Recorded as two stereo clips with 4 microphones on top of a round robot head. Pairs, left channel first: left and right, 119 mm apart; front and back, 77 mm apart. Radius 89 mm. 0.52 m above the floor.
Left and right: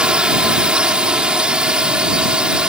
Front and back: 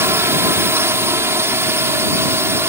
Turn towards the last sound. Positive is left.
turn(degrees=-165)